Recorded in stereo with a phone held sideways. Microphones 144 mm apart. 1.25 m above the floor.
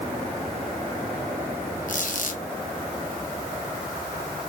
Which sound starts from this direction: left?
A squeak, at 1.9 s.